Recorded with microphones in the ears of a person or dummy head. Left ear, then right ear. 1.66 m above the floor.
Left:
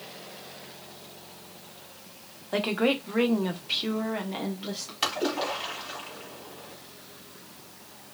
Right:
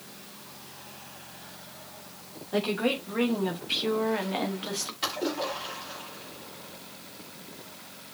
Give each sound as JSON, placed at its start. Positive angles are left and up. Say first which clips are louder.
{"t": 2.5, "sound": "a woman speaking", "louder": "left 2 dB", "side_deg": 35, "distance_m": 1.5}
{"t": 5.0, "sound": "a splash", "louder": "left 4 dB", "side_deg": 45, "distance_m": 2.0}